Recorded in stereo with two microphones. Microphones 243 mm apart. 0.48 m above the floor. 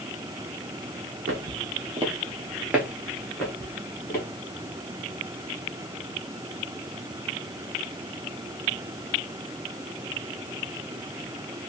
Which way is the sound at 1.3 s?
60° right (ahead or behind).